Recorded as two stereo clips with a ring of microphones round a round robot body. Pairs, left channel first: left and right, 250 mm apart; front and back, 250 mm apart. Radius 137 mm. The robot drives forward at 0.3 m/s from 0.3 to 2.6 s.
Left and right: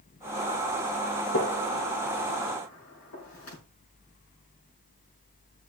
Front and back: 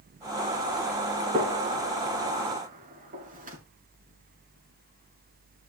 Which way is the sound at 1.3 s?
120° left.